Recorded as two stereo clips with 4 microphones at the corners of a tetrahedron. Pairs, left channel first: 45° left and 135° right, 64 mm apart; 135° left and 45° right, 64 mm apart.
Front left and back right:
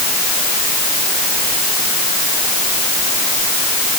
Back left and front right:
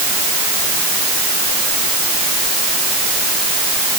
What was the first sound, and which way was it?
Only background noise.